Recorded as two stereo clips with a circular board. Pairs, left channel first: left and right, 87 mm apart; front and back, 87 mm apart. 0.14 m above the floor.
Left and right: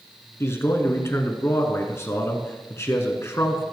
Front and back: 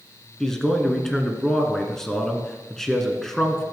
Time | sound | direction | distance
0.4 | a man speaking | 80° left | 1.7 m